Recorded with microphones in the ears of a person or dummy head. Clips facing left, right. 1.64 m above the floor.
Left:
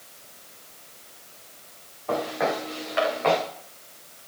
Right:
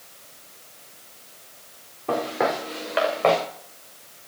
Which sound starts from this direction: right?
Footsteps, at 2.1 s.